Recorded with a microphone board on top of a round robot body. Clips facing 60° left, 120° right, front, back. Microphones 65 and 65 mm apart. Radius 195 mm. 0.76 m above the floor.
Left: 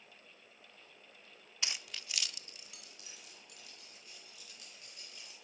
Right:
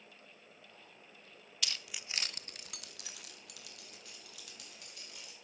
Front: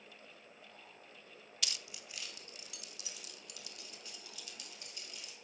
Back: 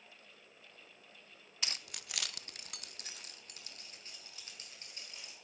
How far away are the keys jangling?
About 0.6 m.